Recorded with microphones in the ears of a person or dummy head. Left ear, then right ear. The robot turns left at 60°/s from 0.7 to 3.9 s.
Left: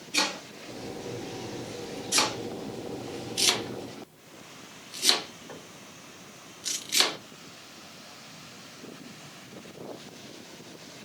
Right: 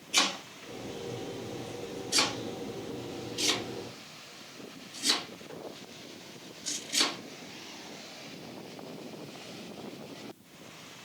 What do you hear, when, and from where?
0.1 s chopping: 45° right (ahead or behind), 1.0 m; by 7.2 s 35° left (ahead or behind), 1.0 m